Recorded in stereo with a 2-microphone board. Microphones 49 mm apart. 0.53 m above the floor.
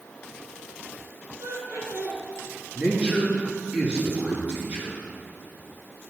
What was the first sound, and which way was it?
Laughter, 85° right.